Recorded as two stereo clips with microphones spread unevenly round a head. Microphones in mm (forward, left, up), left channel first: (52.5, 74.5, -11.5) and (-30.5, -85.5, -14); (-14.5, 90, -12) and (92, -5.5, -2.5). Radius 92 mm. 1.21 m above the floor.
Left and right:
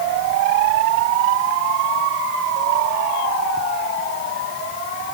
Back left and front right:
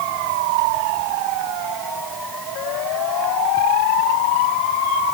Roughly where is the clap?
No clap in this recording.